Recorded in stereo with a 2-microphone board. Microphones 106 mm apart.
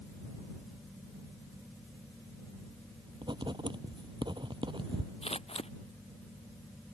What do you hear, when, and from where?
3.2 s writing: 50° right (ahead or behind)
5.2 s scissors: 70° left (ahead or behind)